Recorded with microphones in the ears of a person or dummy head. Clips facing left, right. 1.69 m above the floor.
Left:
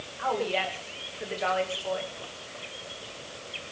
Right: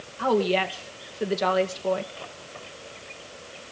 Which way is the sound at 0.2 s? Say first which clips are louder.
Right 6 dB; 55° right (ahead or behind).